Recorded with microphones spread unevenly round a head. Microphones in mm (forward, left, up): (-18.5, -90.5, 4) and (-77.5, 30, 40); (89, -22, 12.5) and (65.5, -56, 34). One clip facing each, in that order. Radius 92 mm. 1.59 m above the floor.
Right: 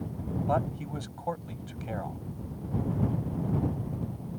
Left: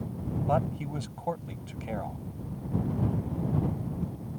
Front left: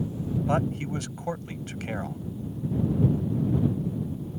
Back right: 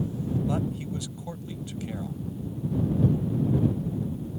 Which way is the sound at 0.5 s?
35° left.